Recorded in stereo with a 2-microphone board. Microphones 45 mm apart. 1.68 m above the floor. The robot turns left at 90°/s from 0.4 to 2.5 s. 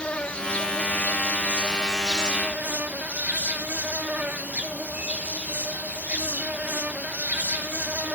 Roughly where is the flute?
I don't hear a flute.